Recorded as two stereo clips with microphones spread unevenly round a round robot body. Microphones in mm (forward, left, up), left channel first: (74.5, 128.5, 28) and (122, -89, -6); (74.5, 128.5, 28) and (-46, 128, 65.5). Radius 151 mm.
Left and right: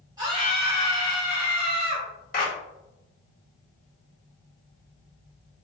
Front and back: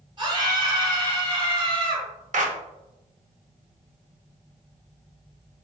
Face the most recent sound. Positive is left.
turn(degrees=165)